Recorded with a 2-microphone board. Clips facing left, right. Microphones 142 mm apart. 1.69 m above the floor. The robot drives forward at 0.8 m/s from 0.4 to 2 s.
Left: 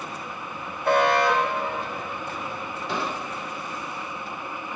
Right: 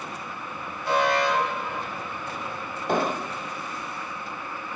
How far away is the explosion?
About 1.1 m.